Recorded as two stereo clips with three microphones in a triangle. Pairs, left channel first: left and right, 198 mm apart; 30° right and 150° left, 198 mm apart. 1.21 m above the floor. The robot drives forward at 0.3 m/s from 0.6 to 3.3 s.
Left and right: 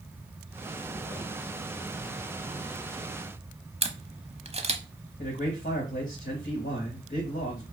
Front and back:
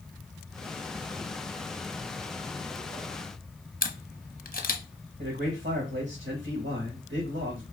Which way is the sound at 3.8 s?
40° right.